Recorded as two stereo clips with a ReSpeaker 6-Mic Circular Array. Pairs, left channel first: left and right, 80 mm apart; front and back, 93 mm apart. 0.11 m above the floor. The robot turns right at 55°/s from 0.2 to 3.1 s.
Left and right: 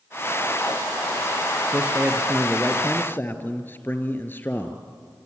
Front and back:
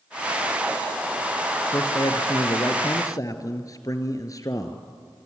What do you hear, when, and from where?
1.7 s a man speaking: 40° right, 1.8 m; by 4.8 s 35° left, 1.8 m